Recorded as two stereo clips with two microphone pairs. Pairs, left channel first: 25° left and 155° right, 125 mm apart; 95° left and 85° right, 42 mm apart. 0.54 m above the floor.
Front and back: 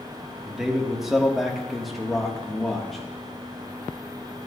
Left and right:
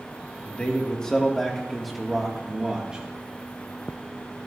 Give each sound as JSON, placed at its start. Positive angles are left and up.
{"t": 0.5, "sound": "a man speaking", "azimuth_deg": 120, "distance_m": 1.5}